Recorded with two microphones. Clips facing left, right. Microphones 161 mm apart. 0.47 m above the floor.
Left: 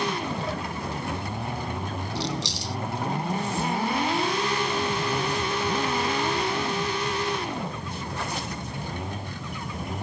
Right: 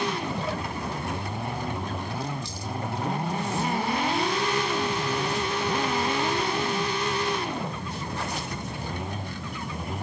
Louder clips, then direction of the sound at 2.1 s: Left 3 dB; 80° left.